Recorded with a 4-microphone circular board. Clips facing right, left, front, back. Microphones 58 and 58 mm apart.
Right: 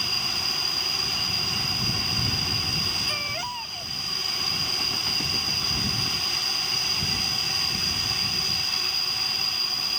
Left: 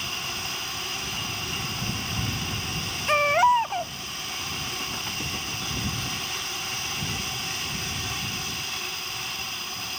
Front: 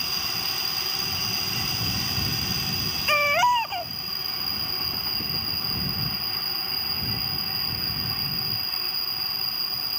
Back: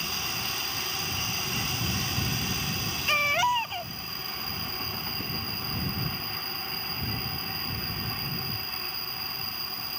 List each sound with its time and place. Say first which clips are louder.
0.0 s an insect: right 1 dB, front 1 dB; 95° right
3.1 s a baby crying: left 13 dB, front 5 dB; 70° left